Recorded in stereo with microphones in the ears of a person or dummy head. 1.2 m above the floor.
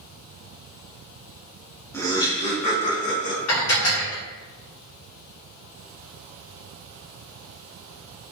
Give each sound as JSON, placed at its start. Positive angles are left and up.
{"t": 1.9, "sound": "laughter", "side_deg": 15, "distance_m": 0.6}
{"t": 3.5, "sound": "dishes clattering", "side_deg": 80, "distance_m": 1.2}